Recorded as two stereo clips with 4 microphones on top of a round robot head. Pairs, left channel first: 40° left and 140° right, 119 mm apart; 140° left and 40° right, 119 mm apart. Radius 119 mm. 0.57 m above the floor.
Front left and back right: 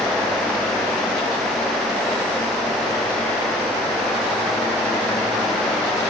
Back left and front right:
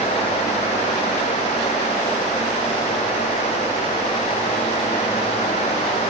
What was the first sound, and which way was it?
Only background noise.